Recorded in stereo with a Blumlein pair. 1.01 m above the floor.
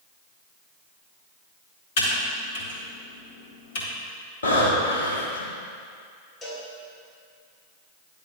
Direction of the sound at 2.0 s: 55° left.